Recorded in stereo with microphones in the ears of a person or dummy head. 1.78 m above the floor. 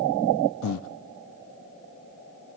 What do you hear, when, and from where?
0.6 s breathing: 75° left (ahead or behind), 0.6 m